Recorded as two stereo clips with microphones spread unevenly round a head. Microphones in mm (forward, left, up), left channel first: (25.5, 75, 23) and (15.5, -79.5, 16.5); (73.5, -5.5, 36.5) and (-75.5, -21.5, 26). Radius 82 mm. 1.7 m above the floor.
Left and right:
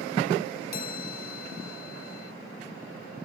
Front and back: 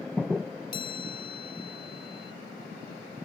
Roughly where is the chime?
Ahead left.